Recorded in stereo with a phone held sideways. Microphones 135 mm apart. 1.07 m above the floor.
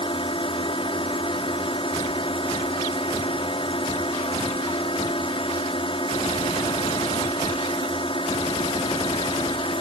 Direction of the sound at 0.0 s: 45° left (ahead or behind).